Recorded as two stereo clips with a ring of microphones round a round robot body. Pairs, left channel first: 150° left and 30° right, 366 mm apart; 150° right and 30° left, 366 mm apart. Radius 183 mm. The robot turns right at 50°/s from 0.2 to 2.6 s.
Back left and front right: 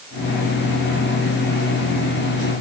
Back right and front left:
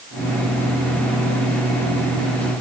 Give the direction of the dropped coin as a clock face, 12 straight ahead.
No dropped coin in this recording.